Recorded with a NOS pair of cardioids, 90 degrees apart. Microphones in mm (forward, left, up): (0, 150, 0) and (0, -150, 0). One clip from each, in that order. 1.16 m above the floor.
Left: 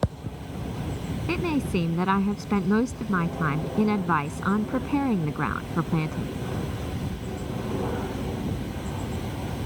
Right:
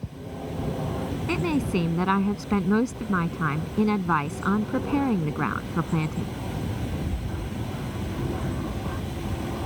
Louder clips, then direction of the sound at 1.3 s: Even; straight ahead.